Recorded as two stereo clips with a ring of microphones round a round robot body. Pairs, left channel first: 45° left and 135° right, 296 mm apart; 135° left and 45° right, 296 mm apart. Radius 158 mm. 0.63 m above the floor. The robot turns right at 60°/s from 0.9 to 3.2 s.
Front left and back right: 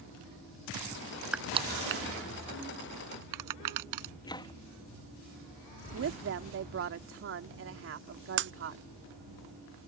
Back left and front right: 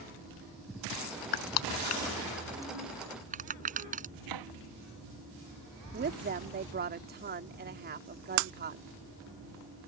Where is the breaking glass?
80° right.